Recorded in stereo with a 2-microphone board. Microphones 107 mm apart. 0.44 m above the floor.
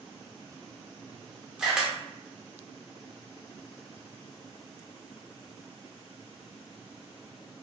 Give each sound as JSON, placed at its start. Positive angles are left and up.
{"t": 1.6, "sound": "a camera shutter", "side_deg": -5, "distance_m": 0.7}